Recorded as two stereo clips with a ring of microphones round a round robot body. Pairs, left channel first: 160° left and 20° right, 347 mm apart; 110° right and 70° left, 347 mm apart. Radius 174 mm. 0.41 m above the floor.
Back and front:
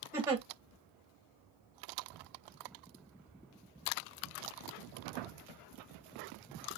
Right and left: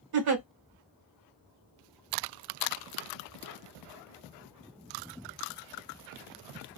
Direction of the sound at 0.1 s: 60° left.